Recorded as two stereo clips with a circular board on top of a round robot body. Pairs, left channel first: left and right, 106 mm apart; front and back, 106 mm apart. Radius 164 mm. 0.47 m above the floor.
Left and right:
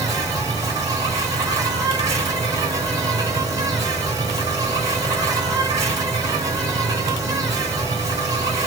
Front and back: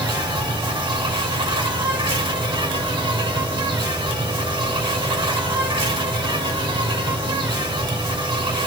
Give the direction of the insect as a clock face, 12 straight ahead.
5 o'clock.